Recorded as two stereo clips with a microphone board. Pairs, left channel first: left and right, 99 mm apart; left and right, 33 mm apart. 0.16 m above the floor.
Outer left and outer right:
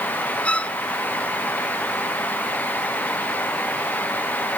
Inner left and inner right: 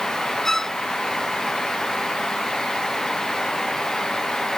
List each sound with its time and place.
0.5 s a violin: 10° left (ahead or behind)